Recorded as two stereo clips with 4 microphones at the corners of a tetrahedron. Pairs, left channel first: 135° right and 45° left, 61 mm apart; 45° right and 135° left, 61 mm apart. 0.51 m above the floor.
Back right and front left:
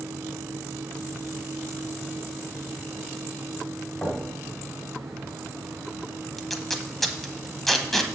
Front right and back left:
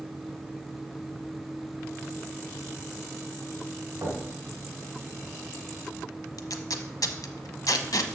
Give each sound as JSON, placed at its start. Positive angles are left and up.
{"t": 4.0, "sound": "knocking", "azimuth_deg": 160, "distance_m": 2.5}
{"t": 6.4, "sound": "tape being pulled", "azimuth_deg": -45, "distance_m": 0.9}